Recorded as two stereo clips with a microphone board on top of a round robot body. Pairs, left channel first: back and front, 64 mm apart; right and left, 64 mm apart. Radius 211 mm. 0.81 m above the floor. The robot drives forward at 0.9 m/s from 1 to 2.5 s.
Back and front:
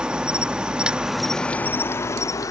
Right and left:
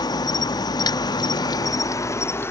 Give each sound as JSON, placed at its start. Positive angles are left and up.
{"t": 0.0, "sound": "an insect", "azimuth_deg": -80}